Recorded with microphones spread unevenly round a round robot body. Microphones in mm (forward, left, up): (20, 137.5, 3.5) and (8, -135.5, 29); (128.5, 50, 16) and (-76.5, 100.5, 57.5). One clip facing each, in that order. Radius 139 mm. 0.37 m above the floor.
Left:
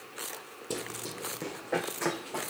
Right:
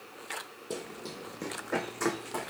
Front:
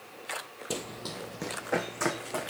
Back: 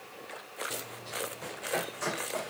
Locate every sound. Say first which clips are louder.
0.7 s running footsteps: left 1 dB, front 5 dB; 15° left, 0.7 m; by 2.5 s 25° right, 1.6 m